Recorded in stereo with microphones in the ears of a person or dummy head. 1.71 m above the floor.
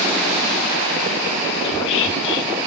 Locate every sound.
1.6 s whispering: 65° left (ahead or behind), 2.5 m